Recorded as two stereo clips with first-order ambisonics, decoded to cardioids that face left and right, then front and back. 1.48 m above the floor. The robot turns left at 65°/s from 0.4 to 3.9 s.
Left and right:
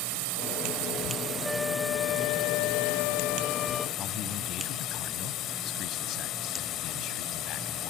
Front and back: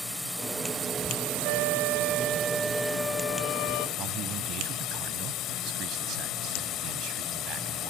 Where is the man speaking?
135° left.